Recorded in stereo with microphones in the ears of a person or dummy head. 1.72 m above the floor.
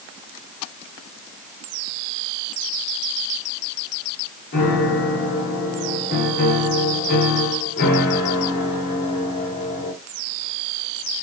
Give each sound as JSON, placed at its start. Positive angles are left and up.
{"t": 4.5, "sound": "a piano", "side_deg": 55, "distance_m": 1.6}